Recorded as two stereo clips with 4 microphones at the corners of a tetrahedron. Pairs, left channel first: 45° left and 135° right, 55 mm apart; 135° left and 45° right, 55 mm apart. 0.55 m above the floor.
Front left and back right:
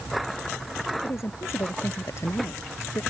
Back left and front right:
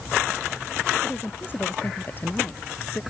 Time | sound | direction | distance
1.0 | a woman speaking | 80° left | ?